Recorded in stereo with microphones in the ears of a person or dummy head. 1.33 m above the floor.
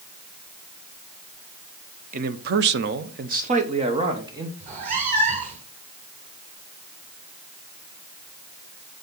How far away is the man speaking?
About 0.8 m.